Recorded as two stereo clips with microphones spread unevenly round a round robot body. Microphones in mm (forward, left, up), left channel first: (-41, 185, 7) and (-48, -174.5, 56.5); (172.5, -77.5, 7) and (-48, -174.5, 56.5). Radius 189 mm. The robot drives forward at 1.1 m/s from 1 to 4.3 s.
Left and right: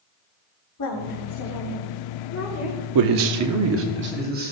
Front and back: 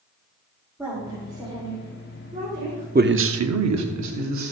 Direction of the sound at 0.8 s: 110° left.